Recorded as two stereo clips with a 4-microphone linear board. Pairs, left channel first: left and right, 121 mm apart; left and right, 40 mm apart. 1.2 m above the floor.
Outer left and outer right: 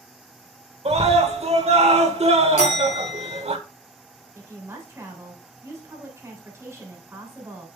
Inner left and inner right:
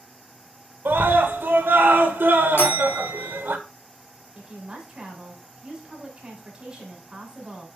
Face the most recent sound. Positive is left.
turn(degrees=-25)  # may be behind; listen again after turning